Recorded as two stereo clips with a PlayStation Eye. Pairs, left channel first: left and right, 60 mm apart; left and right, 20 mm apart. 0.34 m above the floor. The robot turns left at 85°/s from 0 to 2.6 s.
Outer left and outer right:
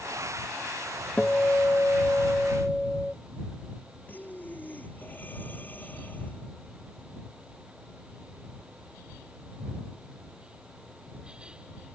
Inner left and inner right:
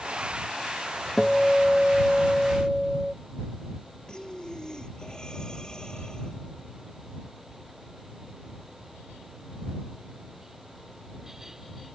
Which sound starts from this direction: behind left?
A guitar, at 1.2 s.